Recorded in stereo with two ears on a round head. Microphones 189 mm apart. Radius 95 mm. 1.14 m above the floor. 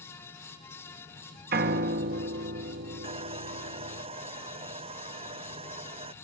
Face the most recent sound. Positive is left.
turn(degrees=-30)  # may be behind; listen again after turning